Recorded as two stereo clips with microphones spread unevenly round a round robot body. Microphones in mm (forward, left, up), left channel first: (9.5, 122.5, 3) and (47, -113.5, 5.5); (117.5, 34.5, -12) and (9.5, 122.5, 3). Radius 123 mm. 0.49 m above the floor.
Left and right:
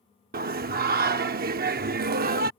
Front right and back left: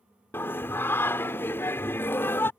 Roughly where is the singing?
Right.